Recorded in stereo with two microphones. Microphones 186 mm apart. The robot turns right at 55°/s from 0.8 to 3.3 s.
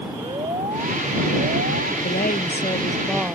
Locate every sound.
0.2 s an alarm: 145° right; by 1.9 s 85° right
2.0 s a woman speaking: 120° left; by 3.4 s 170° right